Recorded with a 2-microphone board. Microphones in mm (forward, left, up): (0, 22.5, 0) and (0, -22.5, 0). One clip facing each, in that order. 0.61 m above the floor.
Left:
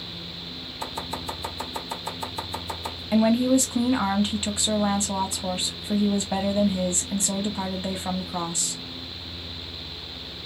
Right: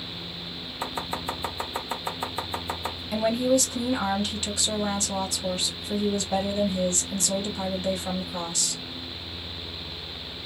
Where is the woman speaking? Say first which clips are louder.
Left 3 dB; 20° left (ahead or behind), 1.0 m.